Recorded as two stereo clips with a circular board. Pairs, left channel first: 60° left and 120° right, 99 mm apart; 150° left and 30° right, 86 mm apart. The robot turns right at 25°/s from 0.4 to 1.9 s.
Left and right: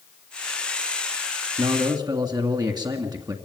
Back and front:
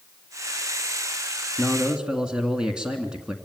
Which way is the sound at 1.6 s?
115° right.